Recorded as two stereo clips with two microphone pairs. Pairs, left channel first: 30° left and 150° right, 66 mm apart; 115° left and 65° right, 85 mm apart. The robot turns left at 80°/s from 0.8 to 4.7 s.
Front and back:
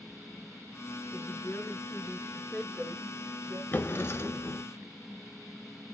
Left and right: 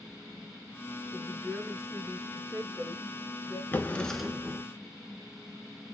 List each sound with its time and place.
1.1 s a woman speaking: 75° left, 2 m; by 3.6 s 125° right, 2 m
3.7 s a drawer: 70° left, 0.6 m; by 4.6 s 5° right, 0.6 m